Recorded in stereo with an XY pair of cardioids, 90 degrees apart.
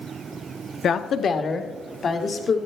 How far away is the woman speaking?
About 0.8 m.